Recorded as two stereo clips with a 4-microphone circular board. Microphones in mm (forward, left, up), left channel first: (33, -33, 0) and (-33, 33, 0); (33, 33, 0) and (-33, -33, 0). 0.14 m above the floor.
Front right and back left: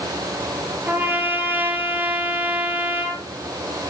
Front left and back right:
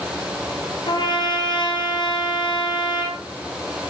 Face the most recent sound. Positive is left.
turn(degrees=70)